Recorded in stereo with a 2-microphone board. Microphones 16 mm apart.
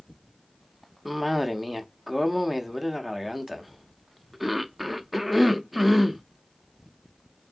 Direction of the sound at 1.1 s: 5° right (ahead or behind).